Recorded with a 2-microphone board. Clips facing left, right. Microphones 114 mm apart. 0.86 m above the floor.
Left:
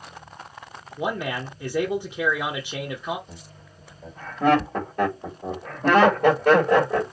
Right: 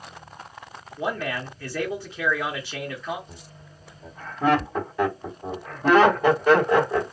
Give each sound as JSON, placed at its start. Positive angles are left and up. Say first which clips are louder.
{"t": 1.0, "sound": "a man speaking", "louder": "left 1 dB", "side_deg": 20, "distance_m": 0.7}
{"t": 3.3, "sound": "laughter", "louder": "left 1 dB", "side_deg": 55, "distance_m": 1.6}